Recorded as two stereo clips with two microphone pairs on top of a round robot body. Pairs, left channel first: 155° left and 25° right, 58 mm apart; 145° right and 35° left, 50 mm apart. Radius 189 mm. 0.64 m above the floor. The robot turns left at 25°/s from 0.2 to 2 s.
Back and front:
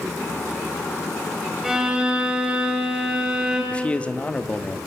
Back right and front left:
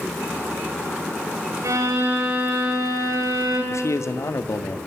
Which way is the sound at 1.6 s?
55° left.